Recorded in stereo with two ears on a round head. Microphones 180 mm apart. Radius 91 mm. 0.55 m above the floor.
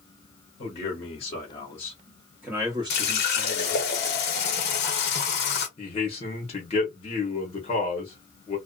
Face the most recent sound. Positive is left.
turn(degrees=30)  # may be behind; listen again after turning